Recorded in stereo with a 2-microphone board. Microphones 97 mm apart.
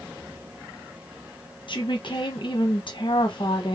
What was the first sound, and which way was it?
A woman speaking, 55° left (ahead or behind).